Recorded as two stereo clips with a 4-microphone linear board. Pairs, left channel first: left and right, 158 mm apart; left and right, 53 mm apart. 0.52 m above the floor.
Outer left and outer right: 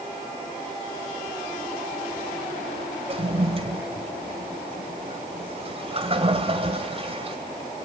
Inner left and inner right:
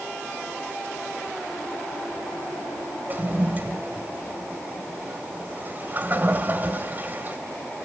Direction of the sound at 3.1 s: 35° right (ahead or behind).